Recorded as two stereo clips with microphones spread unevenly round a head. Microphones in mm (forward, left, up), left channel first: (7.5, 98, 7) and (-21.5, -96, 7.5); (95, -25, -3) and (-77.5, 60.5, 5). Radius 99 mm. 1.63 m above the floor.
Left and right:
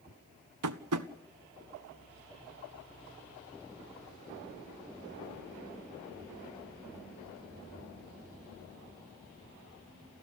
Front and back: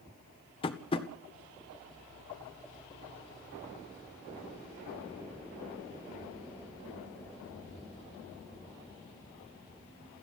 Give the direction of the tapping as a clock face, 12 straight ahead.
3 o'clock.